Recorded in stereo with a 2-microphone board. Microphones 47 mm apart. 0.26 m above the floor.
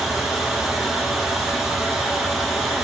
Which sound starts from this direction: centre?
Running water, at 0.0 s.